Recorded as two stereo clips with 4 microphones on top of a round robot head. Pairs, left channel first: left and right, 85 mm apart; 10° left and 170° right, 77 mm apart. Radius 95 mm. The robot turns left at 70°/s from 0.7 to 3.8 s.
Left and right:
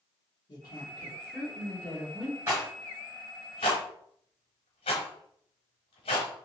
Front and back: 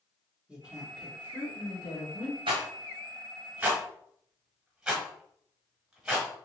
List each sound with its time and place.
0.5 s a woman speaking: 110° left, 1.8 m; by 2.4 s 5° right, 1.8 m
2.5 s a rattle: 160° right, 1.0 m; by 6.5 s 105° left, 1.0 m